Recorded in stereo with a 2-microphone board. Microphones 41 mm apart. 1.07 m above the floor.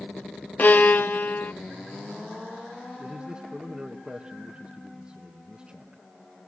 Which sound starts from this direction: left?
A violin, at 0.6 s.